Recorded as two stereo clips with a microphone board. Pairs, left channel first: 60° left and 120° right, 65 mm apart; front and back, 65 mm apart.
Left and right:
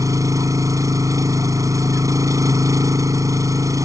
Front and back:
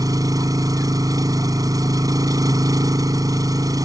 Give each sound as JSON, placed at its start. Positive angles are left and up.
{"t": 0.0, "sound": "an engine running", "azimuth_deg": -155}